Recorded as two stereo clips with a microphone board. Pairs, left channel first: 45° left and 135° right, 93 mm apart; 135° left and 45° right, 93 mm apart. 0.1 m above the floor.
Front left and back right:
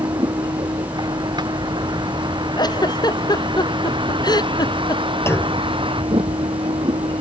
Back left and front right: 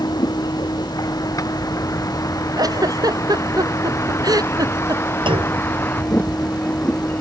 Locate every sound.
0.0 s a vehicle: straight behind; by 7.2 s 155° right
2.6 s a giggle: straight ahead
5.3 s a clunk: 20° right